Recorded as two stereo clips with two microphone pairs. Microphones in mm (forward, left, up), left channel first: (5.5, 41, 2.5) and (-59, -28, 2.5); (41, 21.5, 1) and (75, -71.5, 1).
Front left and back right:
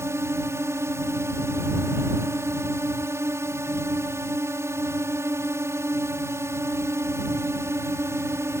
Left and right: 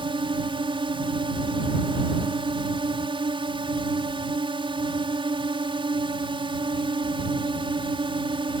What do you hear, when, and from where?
0.0 s a drone: 75° right